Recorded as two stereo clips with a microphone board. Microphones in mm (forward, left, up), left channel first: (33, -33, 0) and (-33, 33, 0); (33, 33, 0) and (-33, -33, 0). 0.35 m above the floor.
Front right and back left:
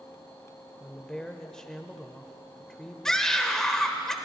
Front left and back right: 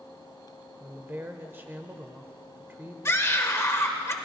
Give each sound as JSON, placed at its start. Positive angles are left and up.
{"t": 0.8, "sound": "a woman speaking", "azimuth_deg": -120, "distance_m": 0.9}
{"t": 3.0, "sound": "a scream", "azimuth_deg": 35, "distance_m": 1.0}